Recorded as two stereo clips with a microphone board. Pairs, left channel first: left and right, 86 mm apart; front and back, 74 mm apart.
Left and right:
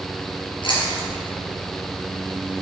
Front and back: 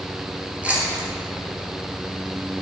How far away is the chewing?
About 4.5 m.